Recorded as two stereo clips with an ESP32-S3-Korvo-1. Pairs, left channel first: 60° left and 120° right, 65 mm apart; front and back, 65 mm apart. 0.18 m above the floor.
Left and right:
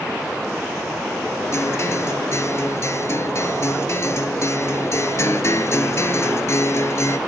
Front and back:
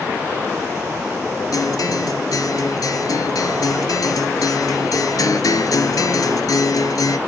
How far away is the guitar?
About 1.0 m.